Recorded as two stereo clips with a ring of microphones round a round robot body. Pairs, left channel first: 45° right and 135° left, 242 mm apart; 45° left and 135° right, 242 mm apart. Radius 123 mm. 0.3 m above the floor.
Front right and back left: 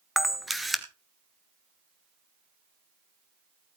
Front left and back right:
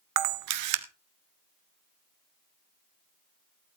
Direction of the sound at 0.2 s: 135° right.